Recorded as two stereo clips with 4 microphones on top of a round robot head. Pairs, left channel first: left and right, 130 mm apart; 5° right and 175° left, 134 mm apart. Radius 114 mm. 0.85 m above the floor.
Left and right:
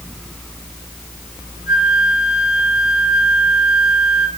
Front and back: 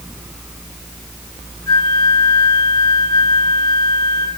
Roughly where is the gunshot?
No gunshot in this recording.